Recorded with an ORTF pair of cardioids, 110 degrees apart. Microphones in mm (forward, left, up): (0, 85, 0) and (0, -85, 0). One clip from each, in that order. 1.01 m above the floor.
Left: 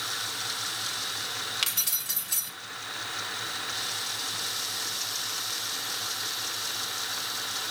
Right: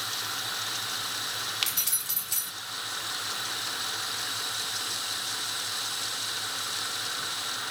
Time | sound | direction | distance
1.6 | keys jangling | straight ahead | 1.8 m